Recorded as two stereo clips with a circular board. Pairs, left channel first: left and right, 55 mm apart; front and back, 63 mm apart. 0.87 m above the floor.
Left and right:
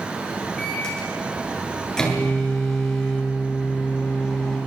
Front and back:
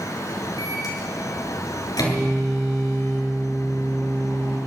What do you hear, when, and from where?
0.6 s a microwave: 10° left, 9 m